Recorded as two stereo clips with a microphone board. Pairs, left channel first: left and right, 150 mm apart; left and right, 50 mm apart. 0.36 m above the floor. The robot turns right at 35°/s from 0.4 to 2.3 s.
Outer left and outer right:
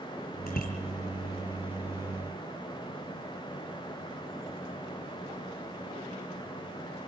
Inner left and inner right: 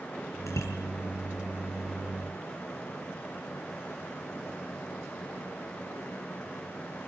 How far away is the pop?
No pop in this recording.